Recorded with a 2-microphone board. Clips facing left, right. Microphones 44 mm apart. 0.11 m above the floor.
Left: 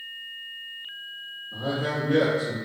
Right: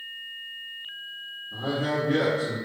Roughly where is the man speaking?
Right.